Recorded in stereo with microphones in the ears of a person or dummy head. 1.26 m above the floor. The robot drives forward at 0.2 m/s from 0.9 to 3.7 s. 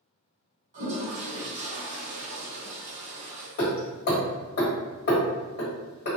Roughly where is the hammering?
Left.